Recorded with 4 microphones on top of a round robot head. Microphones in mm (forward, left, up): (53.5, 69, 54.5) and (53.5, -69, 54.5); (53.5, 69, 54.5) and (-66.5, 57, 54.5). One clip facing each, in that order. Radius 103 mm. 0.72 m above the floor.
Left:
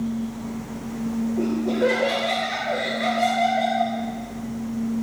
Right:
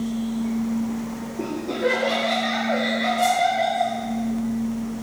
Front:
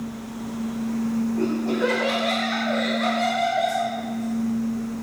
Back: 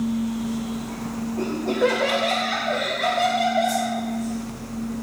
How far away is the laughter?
About 7 m.